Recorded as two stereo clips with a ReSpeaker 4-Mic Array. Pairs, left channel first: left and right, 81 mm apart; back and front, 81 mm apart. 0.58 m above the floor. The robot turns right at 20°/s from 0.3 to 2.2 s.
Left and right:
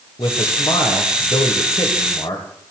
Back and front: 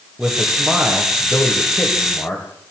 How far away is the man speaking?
About 3 m.